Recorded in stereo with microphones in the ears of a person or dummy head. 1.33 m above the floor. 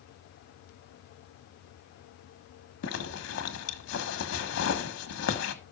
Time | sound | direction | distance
2.8 | a zipper | 75° left (ahead or behind) | 1.6 m